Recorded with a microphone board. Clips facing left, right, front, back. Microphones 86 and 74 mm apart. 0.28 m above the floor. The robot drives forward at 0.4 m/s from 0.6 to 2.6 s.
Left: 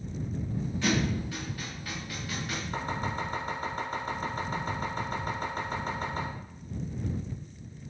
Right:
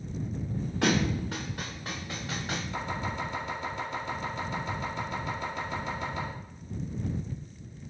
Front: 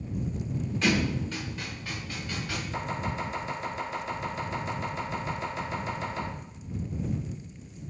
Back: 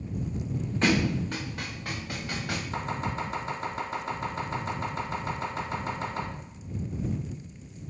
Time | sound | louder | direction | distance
0.8 | a thud | right 2 dB, back 2 dB | 125° right | 0.9 m
2.7 | chopping | left 3 dB, even | 135° left | 1.6 m